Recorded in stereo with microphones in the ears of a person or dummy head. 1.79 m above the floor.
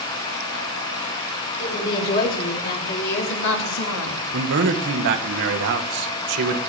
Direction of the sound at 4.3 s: 65° right (ahead or behind).